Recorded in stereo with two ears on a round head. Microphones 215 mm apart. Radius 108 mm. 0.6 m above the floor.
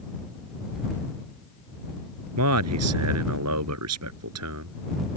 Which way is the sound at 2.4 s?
70° right (ahead or behind).